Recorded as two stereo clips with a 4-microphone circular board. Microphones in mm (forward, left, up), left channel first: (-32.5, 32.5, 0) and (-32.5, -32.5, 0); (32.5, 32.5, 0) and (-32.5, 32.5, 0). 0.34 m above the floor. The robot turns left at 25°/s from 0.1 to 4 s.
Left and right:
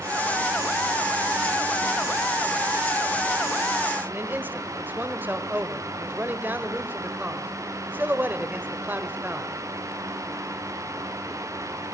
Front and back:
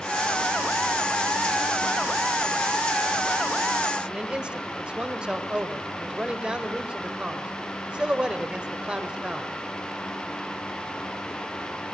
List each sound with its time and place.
4.1 s a man speaking: 120° right, 1.2 m